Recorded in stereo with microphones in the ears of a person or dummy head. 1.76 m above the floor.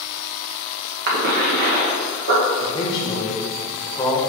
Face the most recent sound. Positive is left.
turn(degrees=25)  # may be behind; listen again after turning